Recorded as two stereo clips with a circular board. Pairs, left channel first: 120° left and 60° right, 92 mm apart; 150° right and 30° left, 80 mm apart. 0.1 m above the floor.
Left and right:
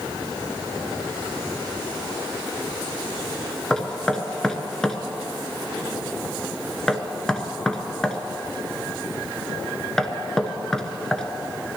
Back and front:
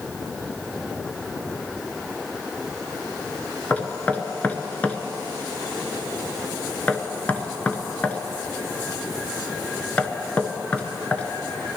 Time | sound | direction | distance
3.7 | knocking | 165° right | 0.8 m